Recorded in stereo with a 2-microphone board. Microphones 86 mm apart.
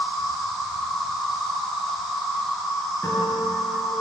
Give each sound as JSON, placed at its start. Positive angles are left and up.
{"t": 0.0, "sound": "an insect", "side_deg": 0, "distance_m": 1.7}
{"t": 3.0, "sound": "a guitar", "side_deg": 30, "distance_m": 3.0}